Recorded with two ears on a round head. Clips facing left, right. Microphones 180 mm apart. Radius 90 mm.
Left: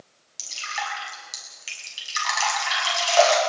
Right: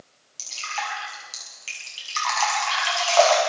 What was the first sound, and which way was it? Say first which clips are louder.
Dripping: right 1 dB; 15° left (ahead or behind).